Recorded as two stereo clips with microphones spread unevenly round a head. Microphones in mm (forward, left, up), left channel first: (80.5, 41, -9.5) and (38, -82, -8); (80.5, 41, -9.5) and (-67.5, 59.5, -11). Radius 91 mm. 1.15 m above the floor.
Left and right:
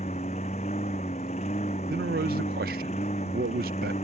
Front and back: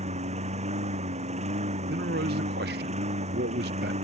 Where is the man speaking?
150° right.